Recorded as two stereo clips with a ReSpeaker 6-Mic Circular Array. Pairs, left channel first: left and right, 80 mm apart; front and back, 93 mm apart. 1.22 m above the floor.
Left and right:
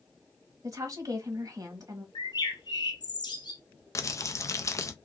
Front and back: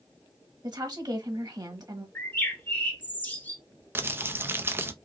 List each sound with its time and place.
0.6 s a woman speaking: 135° right, 1.3 m
2.1 s a bird: 70° left, 1.1 m
4.0 s crumpling: 120° left, 0.5 m